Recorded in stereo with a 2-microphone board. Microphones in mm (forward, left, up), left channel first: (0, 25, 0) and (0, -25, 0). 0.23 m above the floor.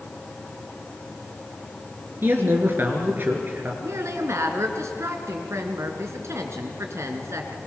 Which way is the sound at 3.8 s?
65° right (ahead or behind).